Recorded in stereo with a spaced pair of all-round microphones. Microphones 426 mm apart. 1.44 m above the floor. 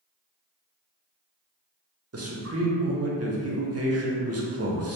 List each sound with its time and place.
2.1 s a man speaking: 35° right (ahead or behind), 0.5 m